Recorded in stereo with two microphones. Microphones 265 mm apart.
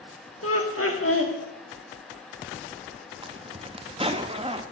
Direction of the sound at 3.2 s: 20° right (ahead or behind).